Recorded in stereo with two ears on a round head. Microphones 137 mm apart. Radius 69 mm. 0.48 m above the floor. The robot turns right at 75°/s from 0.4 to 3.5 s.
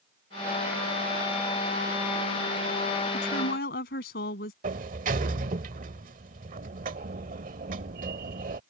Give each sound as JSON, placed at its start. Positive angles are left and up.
{"t": 3.1, "sound": "a woman speaking", "side_deg": 70}
{"t": 4.6, "sound": "a sliding door", "side_deg": -55}